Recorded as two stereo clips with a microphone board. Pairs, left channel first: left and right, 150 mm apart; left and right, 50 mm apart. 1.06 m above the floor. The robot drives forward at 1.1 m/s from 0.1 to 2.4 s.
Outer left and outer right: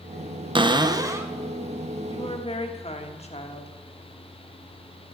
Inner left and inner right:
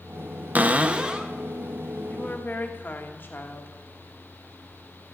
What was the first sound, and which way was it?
A cupboard door, 35° right (ahead or behind).